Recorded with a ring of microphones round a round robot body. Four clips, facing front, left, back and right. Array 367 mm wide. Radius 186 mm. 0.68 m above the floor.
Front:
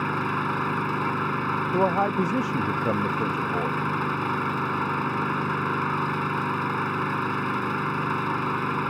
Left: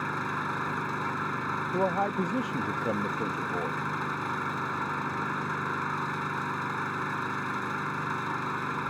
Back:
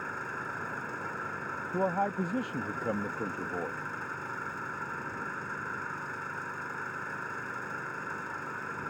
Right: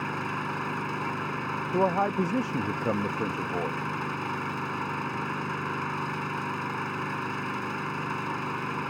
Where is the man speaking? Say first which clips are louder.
Right 3 dB, front 6 dB; 30° right.